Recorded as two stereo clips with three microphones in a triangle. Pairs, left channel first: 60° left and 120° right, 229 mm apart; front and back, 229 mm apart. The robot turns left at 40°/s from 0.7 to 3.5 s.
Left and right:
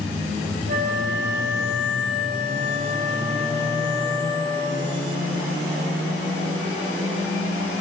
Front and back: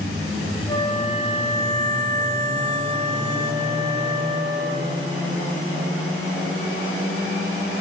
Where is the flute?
75° right, 2.0 m; by 5.1 s 175° left, 2.0 m.